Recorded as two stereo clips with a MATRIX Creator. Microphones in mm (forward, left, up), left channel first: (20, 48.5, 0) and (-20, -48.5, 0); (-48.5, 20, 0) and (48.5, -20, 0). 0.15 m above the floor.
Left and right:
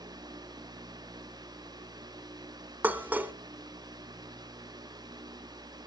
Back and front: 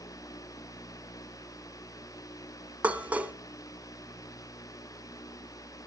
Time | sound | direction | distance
2.8 | dishes clattering | 70° right | 0.9 m